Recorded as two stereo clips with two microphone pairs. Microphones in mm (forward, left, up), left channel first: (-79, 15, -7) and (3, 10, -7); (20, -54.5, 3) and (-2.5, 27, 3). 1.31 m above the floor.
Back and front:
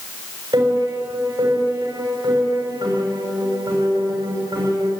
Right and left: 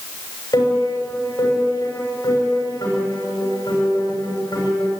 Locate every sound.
0.5 s a piano: 35° right, 7 m